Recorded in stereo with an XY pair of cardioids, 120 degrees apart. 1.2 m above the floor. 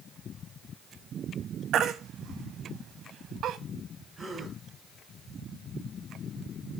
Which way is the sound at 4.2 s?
25° right.